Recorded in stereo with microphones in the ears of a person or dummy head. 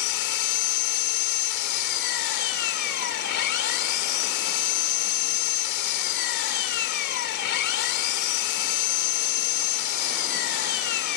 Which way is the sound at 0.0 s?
65° left (ahead or behind).